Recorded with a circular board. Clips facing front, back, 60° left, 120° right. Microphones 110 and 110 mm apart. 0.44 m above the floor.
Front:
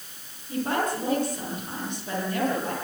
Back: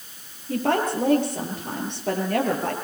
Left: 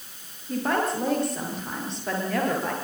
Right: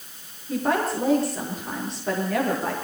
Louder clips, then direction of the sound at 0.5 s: Back 4 dB, right 1 dB; 150° left.